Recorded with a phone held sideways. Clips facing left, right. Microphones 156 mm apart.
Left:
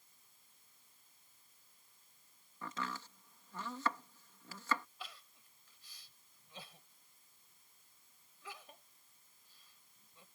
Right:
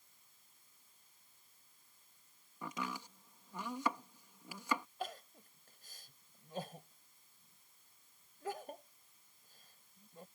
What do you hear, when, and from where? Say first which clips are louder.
2.6 s chopping: right 1 dB; 15° right (ahead or behind)
5.0 s crying: right 10 dB; 50° right (ahead or behind)